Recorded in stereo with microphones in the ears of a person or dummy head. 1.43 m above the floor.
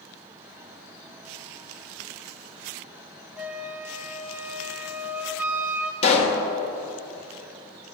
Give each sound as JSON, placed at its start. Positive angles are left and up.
{"t": 3.4, "sound": "a flute", "side_deg": -10, "distance_m": 0.7}
{"t": 6.0, "sound": "a pop", "side_deg": 35, "distance_m": 1.4}